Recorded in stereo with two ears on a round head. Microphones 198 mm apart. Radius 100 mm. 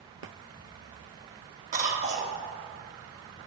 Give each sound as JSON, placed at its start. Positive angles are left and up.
{"t": 1.7, "sound": "a cough", "side_deg": -35, "distance_m": 1.1}